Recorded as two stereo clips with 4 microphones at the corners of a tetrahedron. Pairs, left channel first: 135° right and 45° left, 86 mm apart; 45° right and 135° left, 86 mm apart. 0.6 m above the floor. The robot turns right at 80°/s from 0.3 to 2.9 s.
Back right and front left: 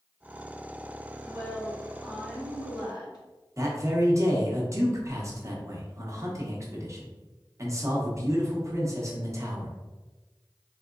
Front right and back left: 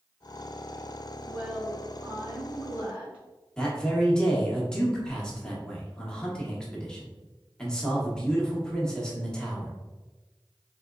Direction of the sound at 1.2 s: 70° left.